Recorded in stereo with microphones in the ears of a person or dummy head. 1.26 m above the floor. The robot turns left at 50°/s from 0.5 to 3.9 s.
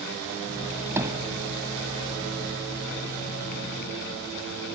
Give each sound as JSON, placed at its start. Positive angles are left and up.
{"t": 1.0, "sound": "hammering", "side_deg": -15}